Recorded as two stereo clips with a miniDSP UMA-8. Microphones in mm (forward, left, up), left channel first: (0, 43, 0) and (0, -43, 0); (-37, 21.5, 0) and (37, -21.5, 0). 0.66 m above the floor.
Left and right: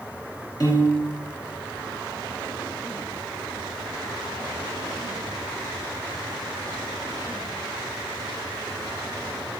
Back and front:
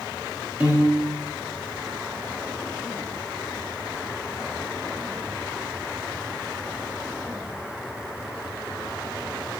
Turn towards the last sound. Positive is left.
turn(degrees=45)